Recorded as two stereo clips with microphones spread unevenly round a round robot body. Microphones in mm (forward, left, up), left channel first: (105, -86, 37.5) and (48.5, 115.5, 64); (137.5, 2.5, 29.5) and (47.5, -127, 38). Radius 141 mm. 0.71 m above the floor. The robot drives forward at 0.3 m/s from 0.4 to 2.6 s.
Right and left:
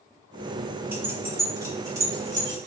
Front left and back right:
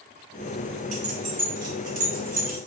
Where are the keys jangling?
170° right, 0.6 m; by 2.6 s 175° right, 1.0 m.